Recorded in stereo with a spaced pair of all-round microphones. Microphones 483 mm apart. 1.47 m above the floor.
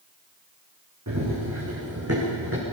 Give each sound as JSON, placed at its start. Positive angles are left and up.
{"t": 1.1, "sound": "running footsteps", "side_deg": -35, "distance_m": 6.0}